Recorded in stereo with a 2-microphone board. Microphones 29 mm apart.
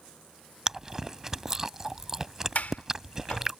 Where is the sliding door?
65° left (ahead or behind).